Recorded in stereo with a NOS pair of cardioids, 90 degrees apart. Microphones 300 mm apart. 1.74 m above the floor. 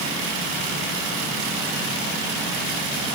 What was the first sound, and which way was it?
Only background noise.